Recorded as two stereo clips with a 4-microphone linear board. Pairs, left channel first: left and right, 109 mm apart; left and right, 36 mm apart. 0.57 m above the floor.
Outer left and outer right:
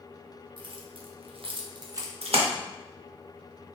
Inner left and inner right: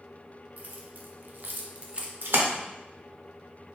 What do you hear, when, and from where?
0.6 s keys jangling: 45° right (ahead or behind), 0.8 m; by 2.1 s 30° right (ahead or behind), 0.7 m
2.2 s a splash: 65° right (ahead or behind), 0.7 m